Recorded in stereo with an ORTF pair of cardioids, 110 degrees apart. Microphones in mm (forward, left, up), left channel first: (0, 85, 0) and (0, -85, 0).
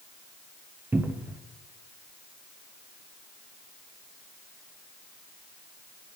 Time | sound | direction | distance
0.9 | a cupboard door | 15° right | 1.1 m